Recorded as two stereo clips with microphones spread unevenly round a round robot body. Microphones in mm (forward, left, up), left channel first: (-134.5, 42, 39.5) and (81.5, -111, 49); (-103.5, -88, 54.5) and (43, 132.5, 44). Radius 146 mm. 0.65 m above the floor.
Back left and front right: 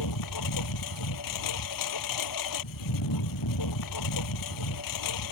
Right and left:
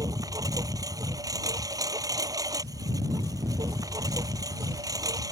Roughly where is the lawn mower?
Behind left.